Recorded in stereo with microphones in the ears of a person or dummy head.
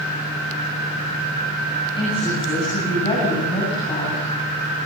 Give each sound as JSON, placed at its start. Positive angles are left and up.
{"t": 2.0, "sound": "a woman speaking", "side_deg": 30, "distance_m": 9.5}